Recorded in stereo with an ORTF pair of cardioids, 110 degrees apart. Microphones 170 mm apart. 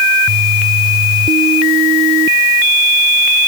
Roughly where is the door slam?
No door slam in this recording.